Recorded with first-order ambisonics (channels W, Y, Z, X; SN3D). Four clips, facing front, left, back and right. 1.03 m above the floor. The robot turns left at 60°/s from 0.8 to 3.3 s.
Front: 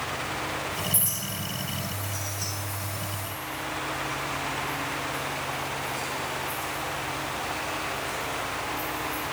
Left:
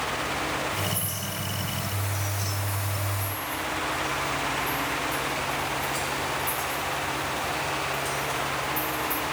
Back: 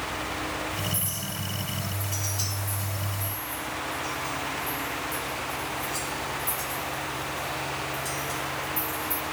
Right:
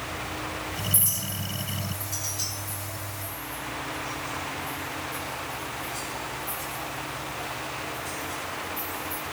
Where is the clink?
65° right, 5 m; by 9.2 s 155° left, 5 m.